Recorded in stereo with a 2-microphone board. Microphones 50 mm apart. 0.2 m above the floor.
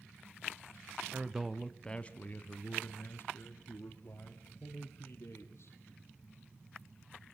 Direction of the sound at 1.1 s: 20° right (ahead or behind).